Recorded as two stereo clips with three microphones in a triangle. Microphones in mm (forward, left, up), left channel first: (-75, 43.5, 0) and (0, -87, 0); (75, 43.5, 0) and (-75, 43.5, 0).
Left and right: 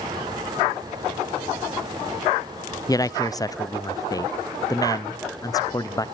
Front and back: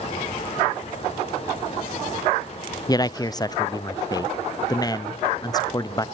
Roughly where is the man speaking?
Ahead left.